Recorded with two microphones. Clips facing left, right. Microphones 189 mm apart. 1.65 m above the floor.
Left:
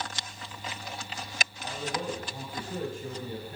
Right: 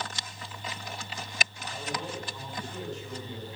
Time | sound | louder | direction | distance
1.6 | a man speaking | left 5 dB | 55° left (ahead or behind) | 6.5 m